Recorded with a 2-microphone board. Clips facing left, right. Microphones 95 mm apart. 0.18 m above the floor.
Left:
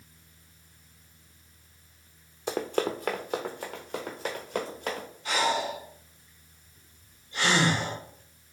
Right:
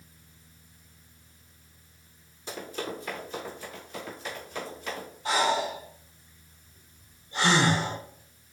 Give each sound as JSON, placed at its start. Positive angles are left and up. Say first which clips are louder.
{"t": 2.5, "sound": "running footsteps", "louder": "left 7 dB", "side_deg": 80, "distance_m": 0.7}
{"t": 5.2, "sound": "breathing", "louder": "right 2 dB", "side_deg": -35, "distance_m": 1.3}